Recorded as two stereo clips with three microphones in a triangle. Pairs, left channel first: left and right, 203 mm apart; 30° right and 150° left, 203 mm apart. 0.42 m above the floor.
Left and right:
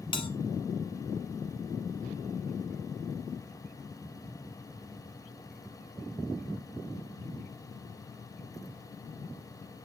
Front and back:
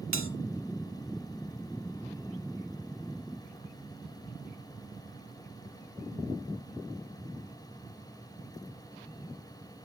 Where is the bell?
155° left, 0.9 m.